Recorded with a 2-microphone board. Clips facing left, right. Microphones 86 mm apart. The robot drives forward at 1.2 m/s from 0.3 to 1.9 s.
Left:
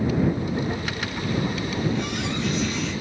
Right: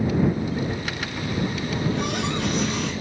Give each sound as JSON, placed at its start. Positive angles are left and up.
{"t": 1.7, "sound": "a running tap", "side_deg": -75, "distance_m": 4.0}